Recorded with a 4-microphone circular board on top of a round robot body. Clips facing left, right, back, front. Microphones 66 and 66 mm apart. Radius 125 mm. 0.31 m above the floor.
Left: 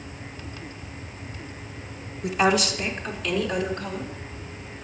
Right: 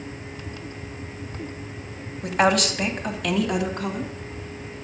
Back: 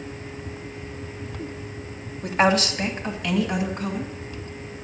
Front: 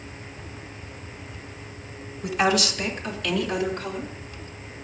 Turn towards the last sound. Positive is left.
turn(degrees=-100)